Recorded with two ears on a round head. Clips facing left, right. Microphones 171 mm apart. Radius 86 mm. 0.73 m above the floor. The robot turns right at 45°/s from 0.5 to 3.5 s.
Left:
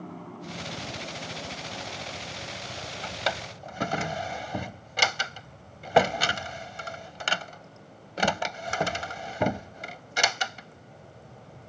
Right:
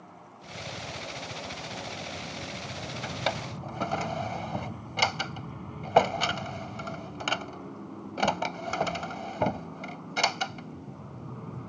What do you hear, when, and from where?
0.0 s an aircraft: 55° left (ahead or behind); by 11.7 s 80° right
3.0 s a drawer: 10° right (ahead or behind); by 11.7 s 10° left (ahead or behind)